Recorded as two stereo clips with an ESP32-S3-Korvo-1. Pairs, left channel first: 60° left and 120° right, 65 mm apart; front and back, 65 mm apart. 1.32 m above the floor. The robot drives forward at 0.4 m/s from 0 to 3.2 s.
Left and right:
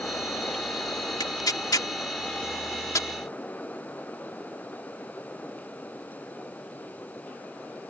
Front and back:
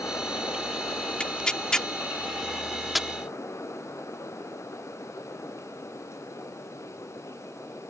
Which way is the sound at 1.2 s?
70° left.